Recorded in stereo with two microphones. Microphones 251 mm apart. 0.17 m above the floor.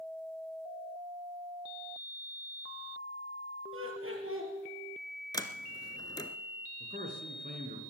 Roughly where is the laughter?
Right.